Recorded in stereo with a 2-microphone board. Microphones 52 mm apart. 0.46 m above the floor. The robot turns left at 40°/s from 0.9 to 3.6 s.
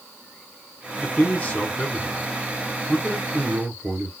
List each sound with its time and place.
1.0 s a man speaking: 55° left, 1.0 m; by 4.1 s 50° right, 1.0 m